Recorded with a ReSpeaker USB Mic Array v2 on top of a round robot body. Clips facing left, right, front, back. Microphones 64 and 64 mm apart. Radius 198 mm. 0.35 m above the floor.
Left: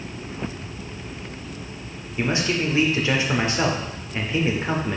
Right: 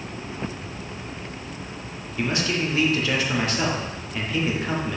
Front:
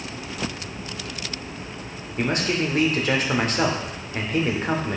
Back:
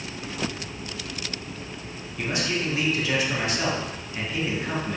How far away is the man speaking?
About 2.0 m.